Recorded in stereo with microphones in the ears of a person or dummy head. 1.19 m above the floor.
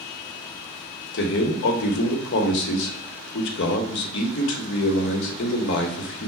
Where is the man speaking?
70° left (ahead or behind), 1.0 m.